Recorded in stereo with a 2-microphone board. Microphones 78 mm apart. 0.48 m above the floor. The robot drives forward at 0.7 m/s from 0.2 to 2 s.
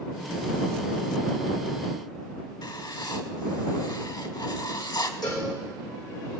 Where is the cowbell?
60° left (ahead or behind), 5 m.